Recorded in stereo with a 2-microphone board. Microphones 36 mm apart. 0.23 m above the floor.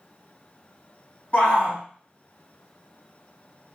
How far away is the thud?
No thud in this recording.